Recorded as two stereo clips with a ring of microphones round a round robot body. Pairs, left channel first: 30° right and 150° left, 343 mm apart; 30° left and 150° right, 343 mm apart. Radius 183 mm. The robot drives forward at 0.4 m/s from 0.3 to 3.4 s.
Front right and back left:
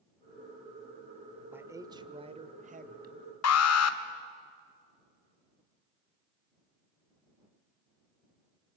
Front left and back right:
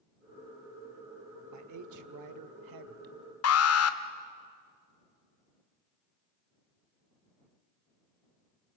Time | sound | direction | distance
1.5 | a man speaking | 125° right | 1.2 m
3.4 | an alarm | straight ahead | 1.3 m